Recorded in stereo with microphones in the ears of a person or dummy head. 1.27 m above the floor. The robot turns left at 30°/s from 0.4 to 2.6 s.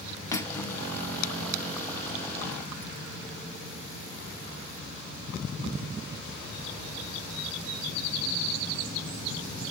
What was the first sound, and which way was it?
Cutlery clinking, 20° left (ahead or behind).